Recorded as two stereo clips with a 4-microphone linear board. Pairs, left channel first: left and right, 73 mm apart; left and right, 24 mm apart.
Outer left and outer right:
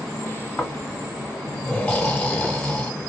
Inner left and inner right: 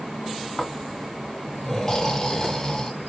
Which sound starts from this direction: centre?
Snoring, at 0.6 s.